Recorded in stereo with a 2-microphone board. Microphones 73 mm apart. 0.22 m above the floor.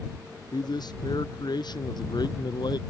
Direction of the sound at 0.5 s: 75° left (ahead or behind).